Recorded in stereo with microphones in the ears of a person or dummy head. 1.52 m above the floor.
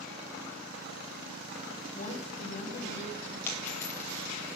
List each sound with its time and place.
1.9 s a woman speaking: 35° left (ahead or behind), 2.5 m
3.5 s a dropped coin: 10° left (ahead or behind), 3 m